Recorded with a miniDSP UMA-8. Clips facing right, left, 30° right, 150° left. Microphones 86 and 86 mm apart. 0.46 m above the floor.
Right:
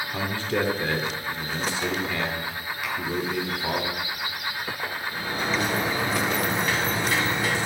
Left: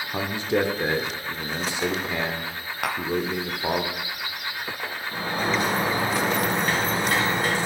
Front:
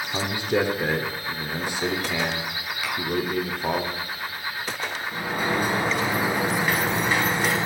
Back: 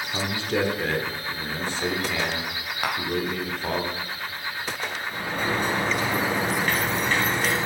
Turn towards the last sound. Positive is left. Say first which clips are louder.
# left 4 dB, front 2 dB
turn(degrees=50)